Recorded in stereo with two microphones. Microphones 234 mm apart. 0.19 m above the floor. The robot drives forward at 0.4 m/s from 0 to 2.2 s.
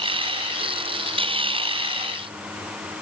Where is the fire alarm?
No fire alarm in this recording.